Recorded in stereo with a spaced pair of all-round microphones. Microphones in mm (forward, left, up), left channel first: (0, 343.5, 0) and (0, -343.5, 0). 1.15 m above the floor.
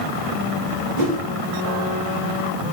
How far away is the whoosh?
About 4 m.